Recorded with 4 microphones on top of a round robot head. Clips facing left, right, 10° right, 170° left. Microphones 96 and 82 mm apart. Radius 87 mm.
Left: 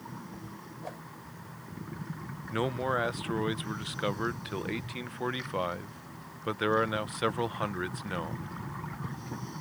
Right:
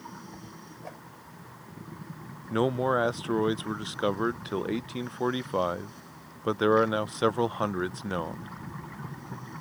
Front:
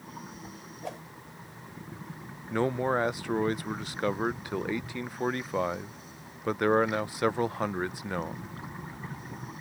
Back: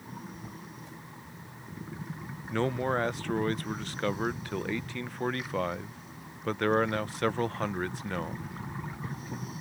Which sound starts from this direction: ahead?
A whoosh, at 0.8 s.